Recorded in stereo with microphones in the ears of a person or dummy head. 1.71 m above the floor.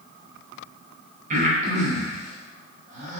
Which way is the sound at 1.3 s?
45° right (ahead or behind).